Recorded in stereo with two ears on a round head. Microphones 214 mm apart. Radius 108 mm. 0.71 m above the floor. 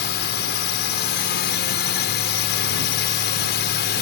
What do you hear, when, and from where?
0.0 s a drone: 50° left (ahead or behind)